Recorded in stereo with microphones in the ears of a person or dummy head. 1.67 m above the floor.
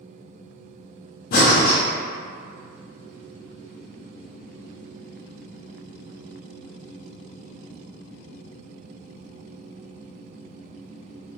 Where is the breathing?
55° left (ahead or behind), 0.6 m.